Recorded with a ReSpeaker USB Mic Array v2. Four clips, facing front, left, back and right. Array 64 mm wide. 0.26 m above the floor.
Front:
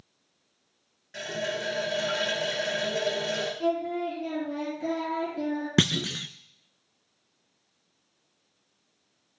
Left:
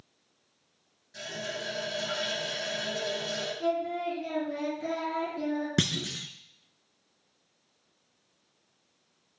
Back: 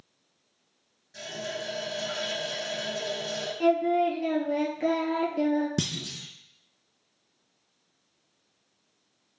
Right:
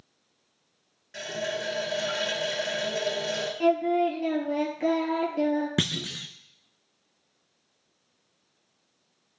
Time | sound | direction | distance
1.1 | a running tap | 35° right | 3 m
3.6 | singing | 135° right | 3 m
5.8 | a clunk | 5° right | 0.6 m